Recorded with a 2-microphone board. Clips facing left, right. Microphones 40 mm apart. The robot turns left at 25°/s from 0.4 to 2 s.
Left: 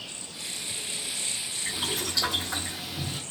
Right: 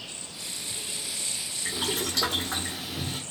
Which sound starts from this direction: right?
Boiling, at 1.6 s.